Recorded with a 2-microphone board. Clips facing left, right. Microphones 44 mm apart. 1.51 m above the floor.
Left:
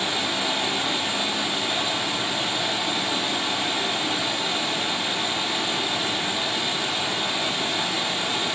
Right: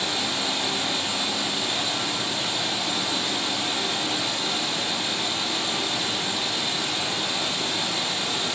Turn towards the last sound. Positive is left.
turn(degrees=20)  # may be behind; listen again after turning